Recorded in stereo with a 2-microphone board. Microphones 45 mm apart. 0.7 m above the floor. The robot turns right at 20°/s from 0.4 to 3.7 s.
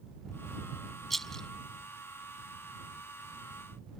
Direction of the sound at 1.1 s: 5° left (ahead or behind).